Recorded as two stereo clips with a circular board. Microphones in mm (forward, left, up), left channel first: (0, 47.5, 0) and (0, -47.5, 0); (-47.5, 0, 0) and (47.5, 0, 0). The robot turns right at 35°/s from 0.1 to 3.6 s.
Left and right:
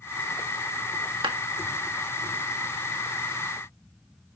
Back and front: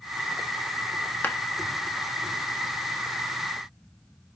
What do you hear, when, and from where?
1.2 s a clap: 110° right, 1.4 m; by 1.4 s 105° right, 1.4 m